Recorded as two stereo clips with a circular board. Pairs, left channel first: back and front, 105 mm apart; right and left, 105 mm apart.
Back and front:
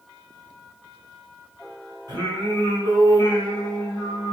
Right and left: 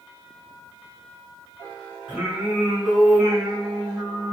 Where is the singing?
15° left, 1.7 m.